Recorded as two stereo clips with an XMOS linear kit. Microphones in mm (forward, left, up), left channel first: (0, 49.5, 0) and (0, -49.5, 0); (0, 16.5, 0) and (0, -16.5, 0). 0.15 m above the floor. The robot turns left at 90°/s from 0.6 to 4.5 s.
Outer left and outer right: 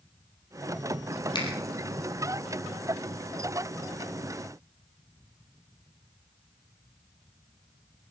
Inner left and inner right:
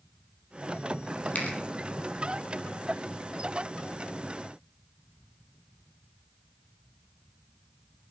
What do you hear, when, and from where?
1.4 s a finger snap: 45° left (ahead or behind), 4 m; by 1.5 s 55° left (ahead or behind), 4 m